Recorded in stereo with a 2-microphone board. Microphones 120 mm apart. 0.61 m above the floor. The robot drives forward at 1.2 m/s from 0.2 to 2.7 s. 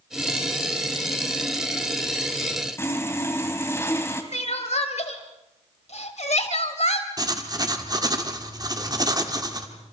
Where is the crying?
65° left (ahead or behind), 1.9 m.